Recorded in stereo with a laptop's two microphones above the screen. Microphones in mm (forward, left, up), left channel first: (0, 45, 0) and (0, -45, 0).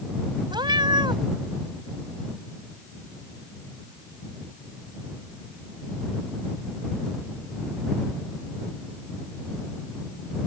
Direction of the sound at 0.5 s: 55° right (ahead or behind).